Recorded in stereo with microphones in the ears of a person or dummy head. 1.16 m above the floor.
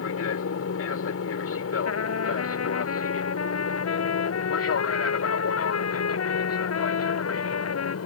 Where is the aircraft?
70° left (ahead or behind); by 8.1 s 75° left (ahead or behind).